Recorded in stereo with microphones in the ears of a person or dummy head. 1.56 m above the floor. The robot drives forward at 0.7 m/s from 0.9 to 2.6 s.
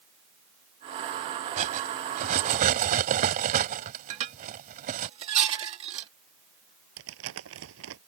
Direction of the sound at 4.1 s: 35° right (ahead or behind).